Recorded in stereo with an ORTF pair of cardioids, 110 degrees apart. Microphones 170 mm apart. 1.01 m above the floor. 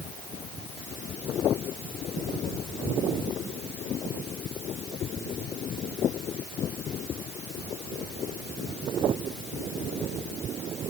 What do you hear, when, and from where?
Only background noise.